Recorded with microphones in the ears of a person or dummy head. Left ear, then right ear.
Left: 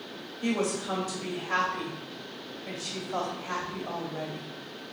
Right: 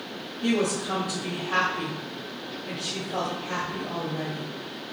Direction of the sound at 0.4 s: 65° left (ahead or behind).